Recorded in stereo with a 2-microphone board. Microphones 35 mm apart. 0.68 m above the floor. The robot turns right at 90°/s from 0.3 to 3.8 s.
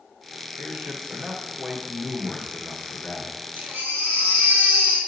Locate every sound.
0.6 s a man speaking: 115° right, 1.9 m; by 3.5 s 140° left, 1.9 m
3.5 s a baby crying: 50° right (ahead or behind), 3.5 m; by 5.0 s 75° right (ahead or behind), 3.5 m